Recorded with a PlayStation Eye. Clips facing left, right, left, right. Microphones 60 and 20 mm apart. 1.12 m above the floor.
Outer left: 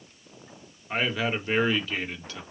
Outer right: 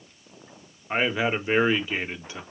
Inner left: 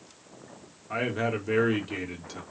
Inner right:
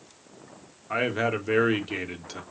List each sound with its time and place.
0.9 s a man speaking: 20° right (ahead or behind), 0.8 m